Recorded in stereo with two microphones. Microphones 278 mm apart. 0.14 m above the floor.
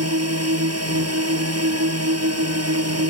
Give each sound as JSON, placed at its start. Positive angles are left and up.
{"t": 0.0, "sound": "a drone", "side_deg": -60}